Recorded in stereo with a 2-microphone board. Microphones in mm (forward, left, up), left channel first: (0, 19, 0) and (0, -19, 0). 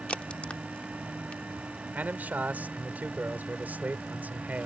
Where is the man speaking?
55° right (ahead or behind).